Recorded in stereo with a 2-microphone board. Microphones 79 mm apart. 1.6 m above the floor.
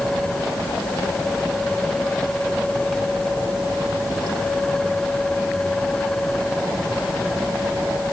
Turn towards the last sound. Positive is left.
No sound to turn to.